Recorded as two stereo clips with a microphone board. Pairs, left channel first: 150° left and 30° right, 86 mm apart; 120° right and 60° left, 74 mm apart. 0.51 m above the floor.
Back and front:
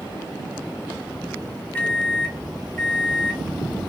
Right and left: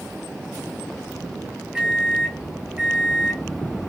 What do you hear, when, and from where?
1.8 s a microwave: 125° left, 0.7 m